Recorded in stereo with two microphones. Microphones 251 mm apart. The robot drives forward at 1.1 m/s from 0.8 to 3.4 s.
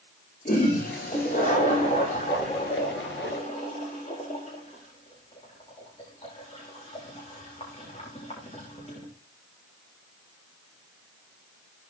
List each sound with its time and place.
0.5 s a toilet flushing: 35° left (ahead or behind), 8.5 m; by 9.1 s 25° left (ahead or behind), 11 m